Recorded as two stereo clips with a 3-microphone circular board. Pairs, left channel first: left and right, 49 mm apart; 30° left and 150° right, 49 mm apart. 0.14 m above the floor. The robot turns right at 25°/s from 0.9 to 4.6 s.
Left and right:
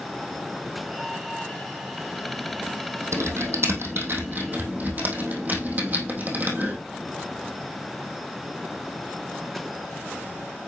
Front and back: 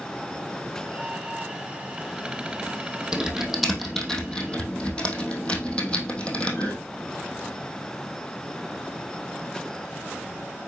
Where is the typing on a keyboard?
75° right, 2.5 m; by 6.8 s 40° right, 2.5 m.